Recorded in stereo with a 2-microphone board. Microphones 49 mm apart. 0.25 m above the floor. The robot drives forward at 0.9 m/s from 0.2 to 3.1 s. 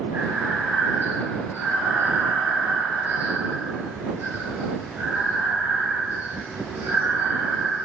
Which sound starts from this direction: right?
Breathing, at 0.1 s.